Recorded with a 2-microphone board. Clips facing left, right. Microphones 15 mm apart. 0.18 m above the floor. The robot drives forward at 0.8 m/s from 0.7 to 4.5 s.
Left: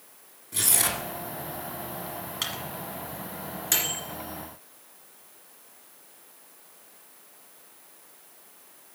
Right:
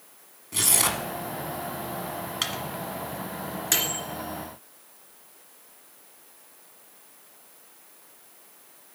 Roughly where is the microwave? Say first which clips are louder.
Right 2 dB; centre.